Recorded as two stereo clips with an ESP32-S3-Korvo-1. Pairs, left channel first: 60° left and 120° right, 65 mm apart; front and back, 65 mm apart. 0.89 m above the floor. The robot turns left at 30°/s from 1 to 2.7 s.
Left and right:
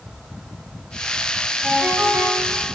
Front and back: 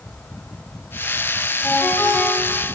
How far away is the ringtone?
About 4.5 m.